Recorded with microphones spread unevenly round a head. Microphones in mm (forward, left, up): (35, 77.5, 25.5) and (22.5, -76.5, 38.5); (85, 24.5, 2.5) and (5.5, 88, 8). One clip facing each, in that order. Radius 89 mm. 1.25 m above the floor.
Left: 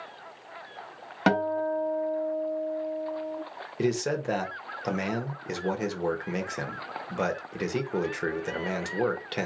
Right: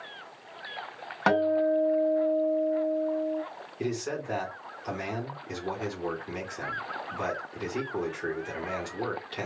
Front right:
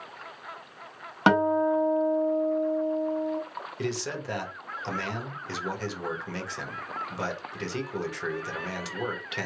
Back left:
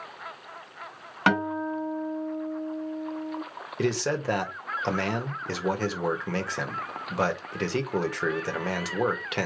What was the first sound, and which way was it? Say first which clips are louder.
A guitar: right 2 dB, front right 4 dB; 25° left.